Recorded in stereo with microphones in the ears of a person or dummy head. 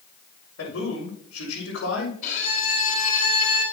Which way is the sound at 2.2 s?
40° left (ahead or behind).